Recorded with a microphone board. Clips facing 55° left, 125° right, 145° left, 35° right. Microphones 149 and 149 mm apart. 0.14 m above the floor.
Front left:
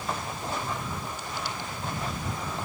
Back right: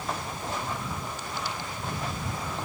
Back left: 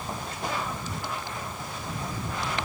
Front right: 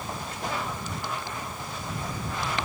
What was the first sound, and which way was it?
Only background noise.